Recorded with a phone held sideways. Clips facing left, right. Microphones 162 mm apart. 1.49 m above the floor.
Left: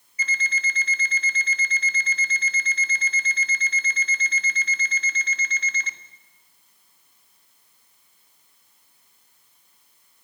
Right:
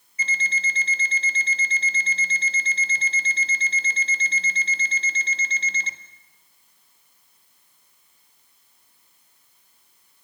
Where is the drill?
I don't hear a drill.